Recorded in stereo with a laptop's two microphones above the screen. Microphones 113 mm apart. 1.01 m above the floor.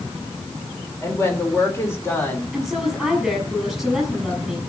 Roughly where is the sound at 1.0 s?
Left.